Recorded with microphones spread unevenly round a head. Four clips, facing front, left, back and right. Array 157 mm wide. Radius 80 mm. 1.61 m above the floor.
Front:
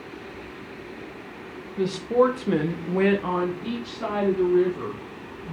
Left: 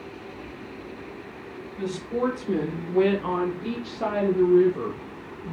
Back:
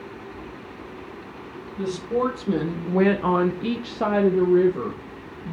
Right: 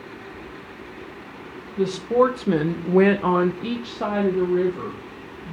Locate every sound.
1.8 s a woman speaking: 60° right, 1.1 m; by 5.5 s 165° left, 1.4 m